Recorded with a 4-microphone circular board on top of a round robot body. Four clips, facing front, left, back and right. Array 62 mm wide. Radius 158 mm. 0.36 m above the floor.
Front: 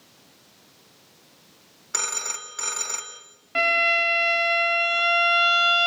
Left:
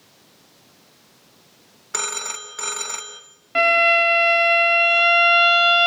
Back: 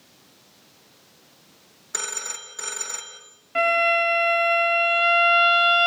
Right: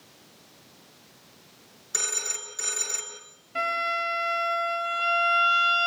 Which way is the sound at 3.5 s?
70° left.